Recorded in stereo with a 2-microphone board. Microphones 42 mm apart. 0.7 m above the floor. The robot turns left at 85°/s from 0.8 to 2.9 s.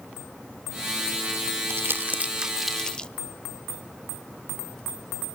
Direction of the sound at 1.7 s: 80° right.